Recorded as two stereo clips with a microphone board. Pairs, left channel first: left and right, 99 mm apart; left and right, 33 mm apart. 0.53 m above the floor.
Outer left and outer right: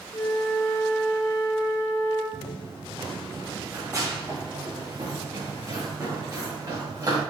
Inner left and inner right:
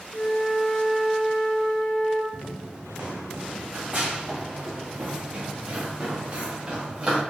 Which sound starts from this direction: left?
A flute, at 0.1 s.